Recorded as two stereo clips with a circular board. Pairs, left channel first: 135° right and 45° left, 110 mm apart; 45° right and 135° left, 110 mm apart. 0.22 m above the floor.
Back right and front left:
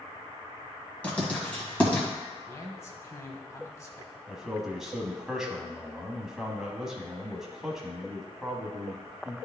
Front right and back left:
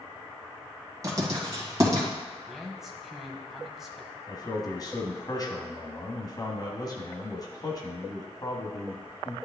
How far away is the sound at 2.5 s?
About 1.0 m.